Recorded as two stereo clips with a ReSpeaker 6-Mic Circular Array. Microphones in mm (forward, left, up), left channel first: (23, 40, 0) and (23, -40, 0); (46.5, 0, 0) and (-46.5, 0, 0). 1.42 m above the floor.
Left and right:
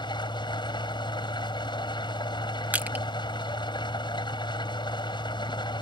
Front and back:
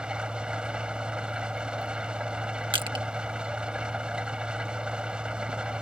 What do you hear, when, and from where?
0.0 s an engine running: 100° left
2.7 s crushing: 155° right